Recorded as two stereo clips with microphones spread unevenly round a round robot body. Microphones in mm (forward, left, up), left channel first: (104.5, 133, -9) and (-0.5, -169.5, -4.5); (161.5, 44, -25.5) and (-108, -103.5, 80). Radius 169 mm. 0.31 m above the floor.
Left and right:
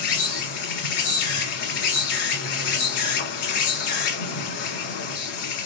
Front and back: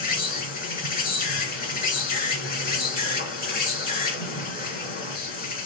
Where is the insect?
90° left, 1.2 m.